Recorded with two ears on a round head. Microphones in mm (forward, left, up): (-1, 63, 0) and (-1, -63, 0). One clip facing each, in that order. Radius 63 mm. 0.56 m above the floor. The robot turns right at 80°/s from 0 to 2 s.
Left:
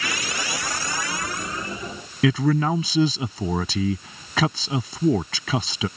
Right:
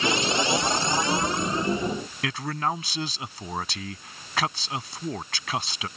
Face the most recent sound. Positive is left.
turn(degrees=80)